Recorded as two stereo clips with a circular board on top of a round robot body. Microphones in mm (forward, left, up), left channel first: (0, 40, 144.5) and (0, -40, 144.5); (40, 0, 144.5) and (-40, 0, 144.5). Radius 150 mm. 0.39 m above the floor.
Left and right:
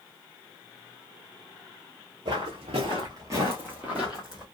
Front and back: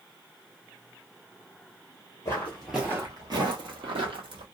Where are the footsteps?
60° right, 0.6 m; by 4.5 s 175° right, 1.1 m.